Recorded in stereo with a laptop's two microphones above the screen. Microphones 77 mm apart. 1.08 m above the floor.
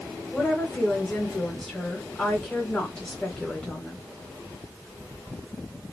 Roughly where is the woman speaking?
Centre.